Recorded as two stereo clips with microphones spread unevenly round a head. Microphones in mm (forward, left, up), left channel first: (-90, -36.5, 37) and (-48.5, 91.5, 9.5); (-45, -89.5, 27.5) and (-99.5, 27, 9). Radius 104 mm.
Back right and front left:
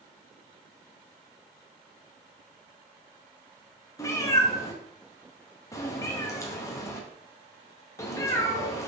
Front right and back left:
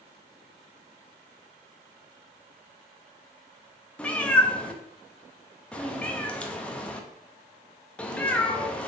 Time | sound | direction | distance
4.0 | a cat meowing | 125° right | 0.6 m